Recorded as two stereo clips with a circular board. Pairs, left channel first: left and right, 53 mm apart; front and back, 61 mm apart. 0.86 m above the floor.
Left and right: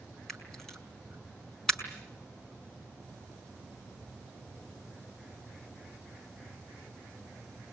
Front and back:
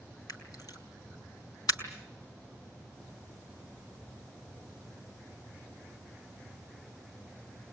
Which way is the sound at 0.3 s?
10° left.